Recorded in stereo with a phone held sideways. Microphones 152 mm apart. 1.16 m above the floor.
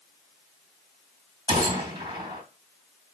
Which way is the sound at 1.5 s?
25° right (ahead or behind).